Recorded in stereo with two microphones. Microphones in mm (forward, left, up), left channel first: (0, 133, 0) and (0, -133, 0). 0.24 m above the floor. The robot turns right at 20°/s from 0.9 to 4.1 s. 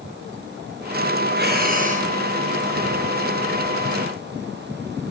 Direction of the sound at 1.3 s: 40° right (ahead or behind).